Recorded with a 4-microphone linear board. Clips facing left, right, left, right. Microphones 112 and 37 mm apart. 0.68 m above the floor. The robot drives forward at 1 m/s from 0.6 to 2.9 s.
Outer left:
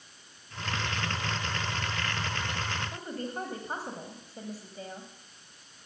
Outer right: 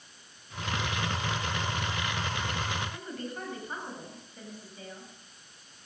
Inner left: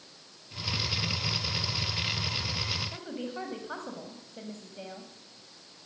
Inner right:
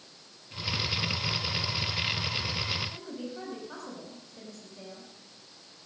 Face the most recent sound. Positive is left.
turn(degrees=40)  # may be behind; listen again after turning